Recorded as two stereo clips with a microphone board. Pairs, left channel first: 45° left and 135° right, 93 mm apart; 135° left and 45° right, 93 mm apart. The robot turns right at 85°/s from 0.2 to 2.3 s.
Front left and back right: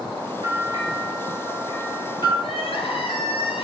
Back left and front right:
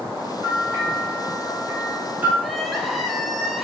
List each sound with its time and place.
0.4 s a bell: 125° right, 3.5 m; by 2.3 s 30° left, 3.5 m
2.4 s crying: 45° left, 1.3 m